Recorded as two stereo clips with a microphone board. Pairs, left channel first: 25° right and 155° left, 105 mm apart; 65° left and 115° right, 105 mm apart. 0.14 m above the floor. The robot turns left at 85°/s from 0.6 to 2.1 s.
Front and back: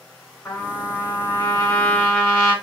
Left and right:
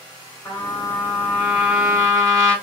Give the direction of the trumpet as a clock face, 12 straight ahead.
11 o'clock.